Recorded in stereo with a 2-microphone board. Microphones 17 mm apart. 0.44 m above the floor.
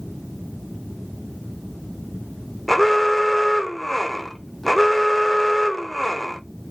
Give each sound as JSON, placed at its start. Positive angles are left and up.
{"t": 2.7, "sound": "an alarm", "side_deg": 5, "distance_m": 0.7}